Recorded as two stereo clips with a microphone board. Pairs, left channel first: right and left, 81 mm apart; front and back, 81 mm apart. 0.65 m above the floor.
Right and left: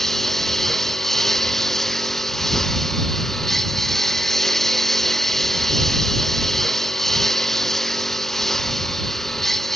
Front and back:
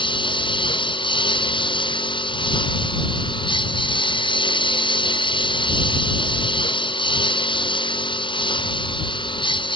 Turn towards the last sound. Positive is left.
turn(degrees=-5)